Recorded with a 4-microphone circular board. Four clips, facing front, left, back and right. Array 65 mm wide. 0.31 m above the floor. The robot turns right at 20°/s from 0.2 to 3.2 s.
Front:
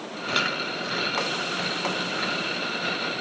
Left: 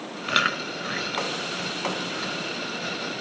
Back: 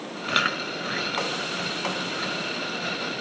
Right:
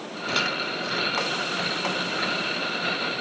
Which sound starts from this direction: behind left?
Chewing, at 0.3 s.